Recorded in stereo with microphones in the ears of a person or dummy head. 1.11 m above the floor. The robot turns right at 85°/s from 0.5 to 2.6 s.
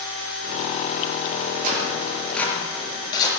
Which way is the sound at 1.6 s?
55° right (ahead or behind).